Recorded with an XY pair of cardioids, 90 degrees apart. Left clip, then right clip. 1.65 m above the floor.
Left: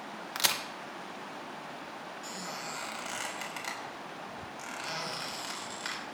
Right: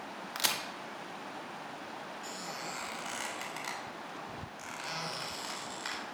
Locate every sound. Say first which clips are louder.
0.3 s a crack: left 3 dB; 15° left, 1.6 m
2.2 s a squeak: left 2 dB; 10° left, 3.5 m